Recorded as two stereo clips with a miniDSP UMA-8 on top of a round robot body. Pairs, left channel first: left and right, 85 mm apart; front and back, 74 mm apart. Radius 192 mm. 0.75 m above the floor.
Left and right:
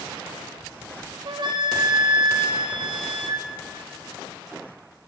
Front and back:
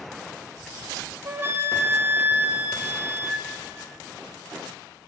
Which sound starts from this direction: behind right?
A flute, at 1.2 s.